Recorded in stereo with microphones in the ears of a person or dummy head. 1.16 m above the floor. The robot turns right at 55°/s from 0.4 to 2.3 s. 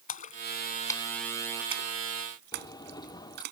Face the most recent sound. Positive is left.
turn(degrees=25)  # may be behind; listen again after turning